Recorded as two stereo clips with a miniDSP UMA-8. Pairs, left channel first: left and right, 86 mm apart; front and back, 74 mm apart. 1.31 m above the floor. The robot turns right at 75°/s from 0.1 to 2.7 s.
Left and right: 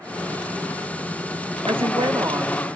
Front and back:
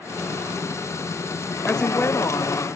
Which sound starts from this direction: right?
A woman speaking, at 1.7 s.